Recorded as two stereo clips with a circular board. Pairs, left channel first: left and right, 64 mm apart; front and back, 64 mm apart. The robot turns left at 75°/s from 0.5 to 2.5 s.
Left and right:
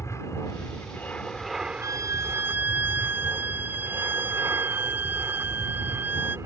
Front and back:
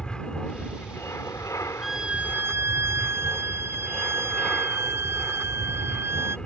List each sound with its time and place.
0.0 s an aircraft: 75° left; by 6.5 s 75° right
1.8 s a violin: 90° right; by 6.4 s 140° right